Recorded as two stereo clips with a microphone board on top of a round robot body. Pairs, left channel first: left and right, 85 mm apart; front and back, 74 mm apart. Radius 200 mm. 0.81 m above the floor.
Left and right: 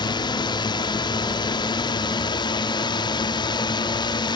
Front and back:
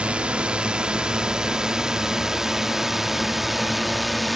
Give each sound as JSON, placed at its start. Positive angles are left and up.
{"t": 0.0, "sound": "a drone", "azimuth_deg": 105}